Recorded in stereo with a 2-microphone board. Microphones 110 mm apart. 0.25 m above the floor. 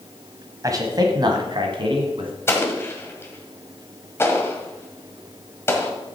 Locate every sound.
0.6 s a man speaking: 35° right (ahead or behind), 1.4 m; by 2.3 s 55° right (ahead or behind), 2 m
2.5 s an explosion: 25° left (ahead or behind), 1.4 m